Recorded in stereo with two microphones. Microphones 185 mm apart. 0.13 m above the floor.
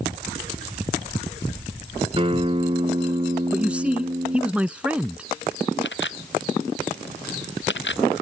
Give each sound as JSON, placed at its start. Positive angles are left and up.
{"t": 2.2, "sound": "a guitar", "side_deg": -35}
{"t": 3.5, "sound": "a man speaking", "side_deg": -5}
{"t": 5.8, "sound": "a camera shutter", "side_deg": 85}